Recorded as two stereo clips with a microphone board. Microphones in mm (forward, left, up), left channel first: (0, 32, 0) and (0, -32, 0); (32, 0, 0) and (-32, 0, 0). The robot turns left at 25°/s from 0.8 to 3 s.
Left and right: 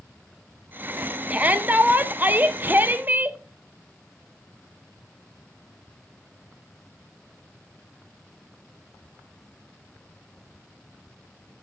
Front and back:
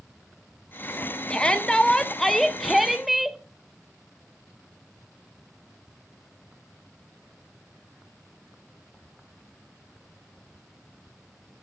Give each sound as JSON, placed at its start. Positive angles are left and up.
{"t": 1.3, "sound": "a shout", "azimuth_deg": -60, "distance_m": 0.5}